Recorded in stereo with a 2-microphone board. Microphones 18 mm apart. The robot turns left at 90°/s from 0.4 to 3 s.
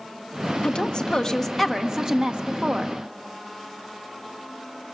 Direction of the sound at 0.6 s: 90° left.